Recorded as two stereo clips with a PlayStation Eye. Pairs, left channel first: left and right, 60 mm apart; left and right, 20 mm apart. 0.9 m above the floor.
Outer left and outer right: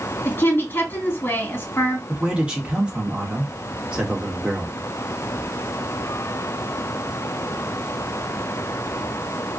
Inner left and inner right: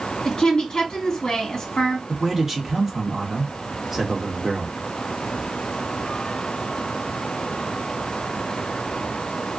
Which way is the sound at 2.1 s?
15° right (ahead or behind).